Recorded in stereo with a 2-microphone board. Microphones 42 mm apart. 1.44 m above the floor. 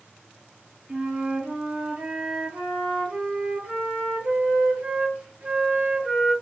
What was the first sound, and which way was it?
A flute, 40° right (ahead or behind).